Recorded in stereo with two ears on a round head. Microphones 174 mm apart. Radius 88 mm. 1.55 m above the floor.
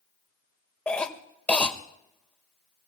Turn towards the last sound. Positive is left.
turn(degrees=5)  # may be behind; listen again after turning